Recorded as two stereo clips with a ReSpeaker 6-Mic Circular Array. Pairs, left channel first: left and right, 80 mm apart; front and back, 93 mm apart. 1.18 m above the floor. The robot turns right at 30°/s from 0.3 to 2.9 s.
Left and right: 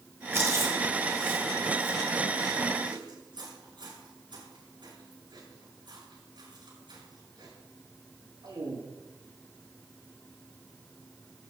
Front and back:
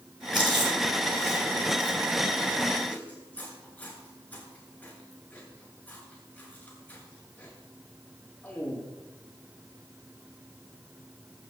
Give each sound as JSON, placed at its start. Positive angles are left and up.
{"t": 0.3, "sound": "chewing", "azimuth_deg": -150, "distance_m": 8.0}